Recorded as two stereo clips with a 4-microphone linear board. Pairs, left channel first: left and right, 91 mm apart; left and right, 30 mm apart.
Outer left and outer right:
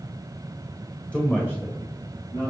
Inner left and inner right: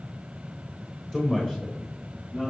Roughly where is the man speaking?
Centre.